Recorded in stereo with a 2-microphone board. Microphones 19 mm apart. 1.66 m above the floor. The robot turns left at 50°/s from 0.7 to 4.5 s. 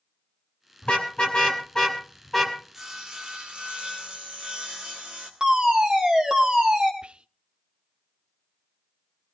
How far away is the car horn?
About 4 m.